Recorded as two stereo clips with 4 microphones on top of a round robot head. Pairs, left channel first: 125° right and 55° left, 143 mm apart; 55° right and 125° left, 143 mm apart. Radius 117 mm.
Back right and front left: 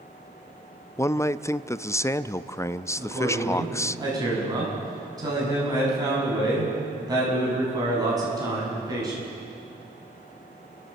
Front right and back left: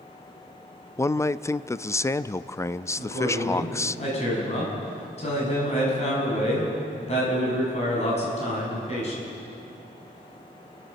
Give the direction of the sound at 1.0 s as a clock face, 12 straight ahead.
3 o'clock.